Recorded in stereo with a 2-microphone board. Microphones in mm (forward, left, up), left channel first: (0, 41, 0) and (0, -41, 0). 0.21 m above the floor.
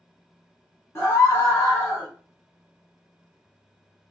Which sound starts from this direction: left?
A scream, at 0.9 s.